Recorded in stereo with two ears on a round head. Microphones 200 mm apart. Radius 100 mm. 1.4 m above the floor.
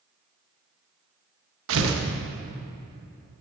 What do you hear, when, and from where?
1.7 s tearing paper: 60° right (ahead or behind), 1.1 m